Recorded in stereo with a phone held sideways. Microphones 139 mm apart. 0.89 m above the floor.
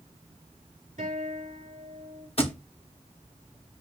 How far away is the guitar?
About 4 m.